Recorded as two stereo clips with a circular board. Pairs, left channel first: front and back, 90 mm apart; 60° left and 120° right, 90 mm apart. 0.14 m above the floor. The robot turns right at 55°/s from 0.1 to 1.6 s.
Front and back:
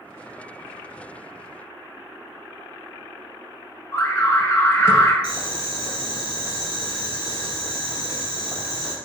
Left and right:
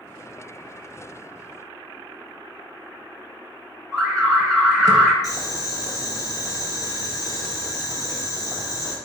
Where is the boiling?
30° left, 1.8 m.